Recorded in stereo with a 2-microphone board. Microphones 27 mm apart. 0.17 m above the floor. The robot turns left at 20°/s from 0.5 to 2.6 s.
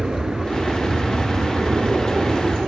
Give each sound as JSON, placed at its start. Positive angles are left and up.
{"t": 0.0, "sound": "an aircraft", "side_deg": -40}